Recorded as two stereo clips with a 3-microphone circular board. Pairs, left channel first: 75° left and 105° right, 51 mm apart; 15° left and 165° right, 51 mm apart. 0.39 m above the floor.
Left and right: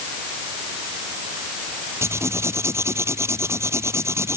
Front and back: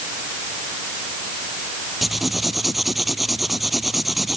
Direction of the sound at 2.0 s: 75° right.